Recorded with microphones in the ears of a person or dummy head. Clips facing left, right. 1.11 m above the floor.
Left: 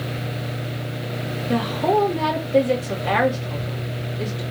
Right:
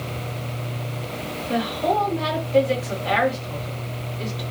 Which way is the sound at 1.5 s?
45° left (ahead or behind).